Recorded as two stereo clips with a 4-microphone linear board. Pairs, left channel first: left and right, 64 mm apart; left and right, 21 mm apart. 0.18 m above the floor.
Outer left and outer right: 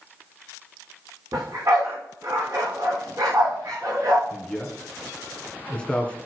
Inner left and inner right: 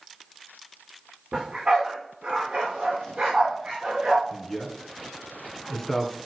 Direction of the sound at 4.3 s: 15° left (ahead or behind).